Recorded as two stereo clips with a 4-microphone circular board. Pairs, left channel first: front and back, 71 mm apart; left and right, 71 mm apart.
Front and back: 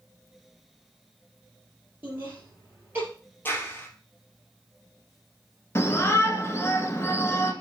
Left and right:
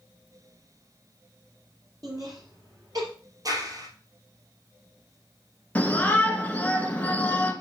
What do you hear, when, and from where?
2.0 s laughter: 120° right, 3.5 m
3.5 s a clap: 60° right, 2 m
5.8 s a shout: 30° left, 1.4 m